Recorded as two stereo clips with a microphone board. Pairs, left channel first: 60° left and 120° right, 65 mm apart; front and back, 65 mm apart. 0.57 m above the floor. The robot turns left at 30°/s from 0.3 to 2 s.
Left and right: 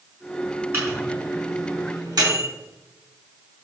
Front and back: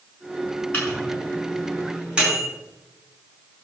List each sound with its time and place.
0.7 s a microwave: 65° right, 5 m; by 2.5 s 105° right, 5 m